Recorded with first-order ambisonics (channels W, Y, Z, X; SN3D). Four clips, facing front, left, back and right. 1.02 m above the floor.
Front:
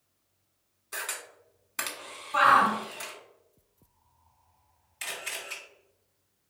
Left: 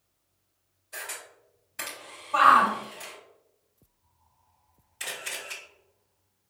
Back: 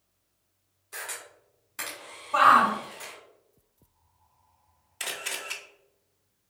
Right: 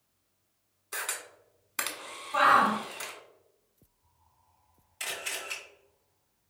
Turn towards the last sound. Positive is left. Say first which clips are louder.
# even, back 2 dB
turn(degrees=-170)